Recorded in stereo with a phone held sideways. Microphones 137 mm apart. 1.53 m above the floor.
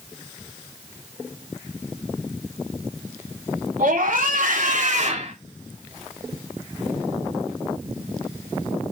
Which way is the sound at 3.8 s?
85° right.